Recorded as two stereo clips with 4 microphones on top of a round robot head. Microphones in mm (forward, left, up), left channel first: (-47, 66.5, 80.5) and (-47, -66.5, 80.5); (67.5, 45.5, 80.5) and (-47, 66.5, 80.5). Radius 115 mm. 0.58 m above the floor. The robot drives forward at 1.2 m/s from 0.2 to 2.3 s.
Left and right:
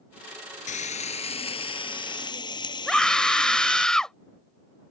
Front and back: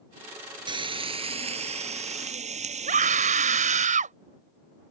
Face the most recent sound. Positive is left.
turn(degrees=175)